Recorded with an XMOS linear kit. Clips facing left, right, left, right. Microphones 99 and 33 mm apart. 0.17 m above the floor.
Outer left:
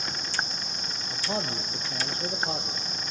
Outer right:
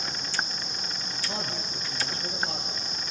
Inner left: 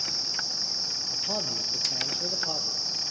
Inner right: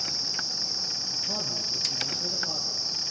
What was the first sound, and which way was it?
A man speaking, 25° left (ahead or behind).